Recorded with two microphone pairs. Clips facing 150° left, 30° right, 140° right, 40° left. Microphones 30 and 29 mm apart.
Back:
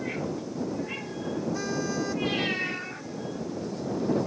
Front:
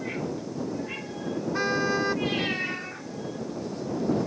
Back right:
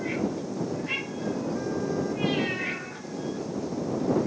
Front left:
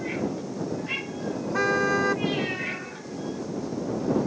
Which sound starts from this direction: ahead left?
A car horn, at 1.5 s.